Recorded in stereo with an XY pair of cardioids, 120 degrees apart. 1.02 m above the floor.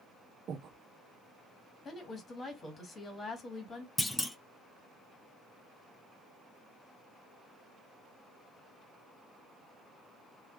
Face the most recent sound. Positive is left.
turn(degrees=10)